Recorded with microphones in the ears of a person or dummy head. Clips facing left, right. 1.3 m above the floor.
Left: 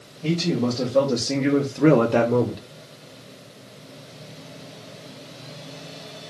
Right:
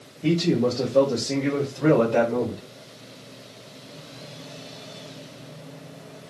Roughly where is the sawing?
No sawing in this recording.